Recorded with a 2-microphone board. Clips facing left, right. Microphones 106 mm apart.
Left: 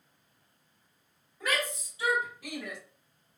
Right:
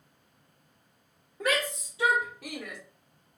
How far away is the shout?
About 1.3 m.